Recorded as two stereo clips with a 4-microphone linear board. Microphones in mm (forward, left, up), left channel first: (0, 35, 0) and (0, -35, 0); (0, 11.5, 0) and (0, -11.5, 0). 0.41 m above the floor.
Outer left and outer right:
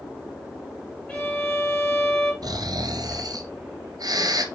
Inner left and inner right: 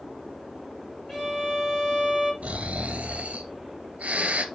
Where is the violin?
10° left (ahead or behind), 5.5 m.